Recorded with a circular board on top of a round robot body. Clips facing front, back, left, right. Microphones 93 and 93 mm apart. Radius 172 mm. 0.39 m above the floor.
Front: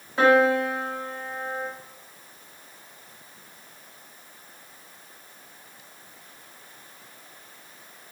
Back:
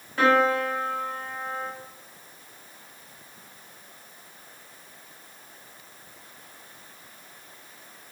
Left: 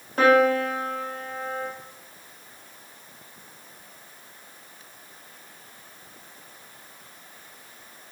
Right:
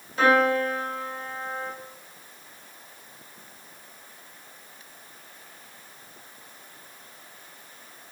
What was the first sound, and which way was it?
A piano, 70° left.